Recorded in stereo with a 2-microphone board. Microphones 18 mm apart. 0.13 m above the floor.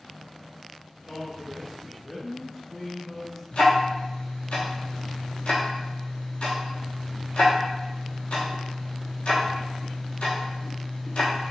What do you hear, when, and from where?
1.1 s a man speaking: 5° left (ahead or behind), 1.4 m
3.5 s ticking: 70° left (ahead or behind), 1.1 m